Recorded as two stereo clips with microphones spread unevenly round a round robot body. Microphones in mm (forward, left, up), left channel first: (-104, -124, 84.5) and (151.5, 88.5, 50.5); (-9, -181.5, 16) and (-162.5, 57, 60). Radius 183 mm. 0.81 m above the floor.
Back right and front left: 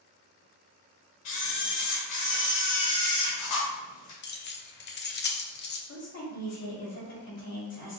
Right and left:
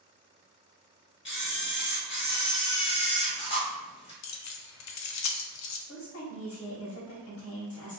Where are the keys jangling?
80° right, 0.5 m.